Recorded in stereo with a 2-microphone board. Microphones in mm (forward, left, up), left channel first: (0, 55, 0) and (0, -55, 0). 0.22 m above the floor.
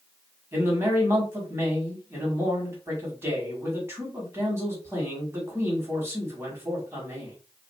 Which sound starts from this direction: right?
A man speaking, at 0.5 s.